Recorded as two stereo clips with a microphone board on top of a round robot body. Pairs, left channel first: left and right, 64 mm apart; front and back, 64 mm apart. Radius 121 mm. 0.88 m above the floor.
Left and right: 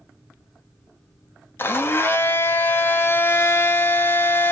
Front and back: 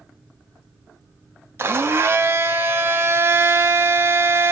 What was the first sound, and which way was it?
A blender, 135° left.